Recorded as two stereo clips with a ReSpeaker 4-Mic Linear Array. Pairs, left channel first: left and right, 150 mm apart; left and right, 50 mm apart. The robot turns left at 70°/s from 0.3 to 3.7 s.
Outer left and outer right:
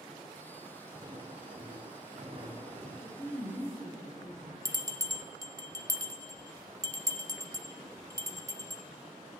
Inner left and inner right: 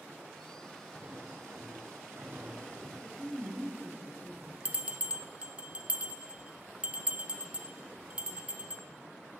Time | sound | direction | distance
0.9 | footsteps | 10° right (ahead or behind) | 3.5 m
3.0 | a woman speaking | 55° left | 3 m
4.7 | a bell | 25° right (ahead or behind) | 0.6 m